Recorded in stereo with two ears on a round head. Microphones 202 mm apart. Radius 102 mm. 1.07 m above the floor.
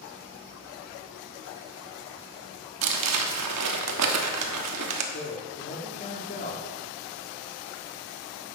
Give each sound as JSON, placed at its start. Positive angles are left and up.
{"t": 2.8, "sound": "crumpling", "side_deg": -80, "distance_m": 1.3}
{"t": 5.1, "sound": "a man speaking", "side_deg": 35, "distance_m": 1.9}